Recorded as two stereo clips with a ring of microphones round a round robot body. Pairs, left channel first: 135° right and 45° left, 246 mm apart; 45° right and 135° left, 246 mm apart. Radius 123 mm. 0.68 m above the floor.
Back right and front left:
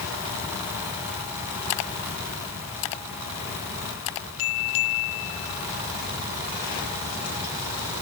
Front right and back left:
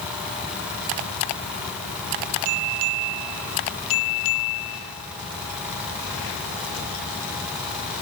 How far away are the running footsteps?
I don't hear running footsteps.